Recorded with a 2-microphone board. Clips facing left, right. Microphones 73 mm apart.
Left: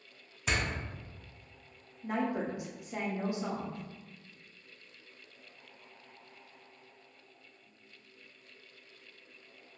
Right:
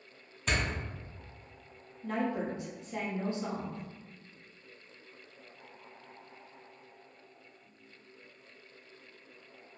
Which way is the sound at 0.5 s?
5° left (ahead or behind).